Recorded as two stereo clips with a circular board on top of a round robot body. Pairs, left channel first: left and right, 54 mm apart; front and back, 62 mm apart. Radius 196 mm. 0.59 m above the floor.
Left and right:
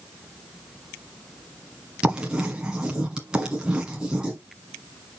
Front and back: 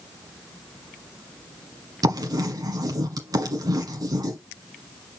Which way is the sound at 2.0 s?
165° right.